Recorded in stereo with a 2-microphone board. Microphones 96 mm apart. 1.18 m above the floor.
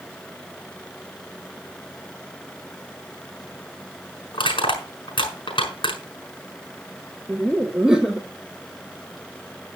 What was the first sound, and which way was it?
Crushing, 60° left (ahead or behind).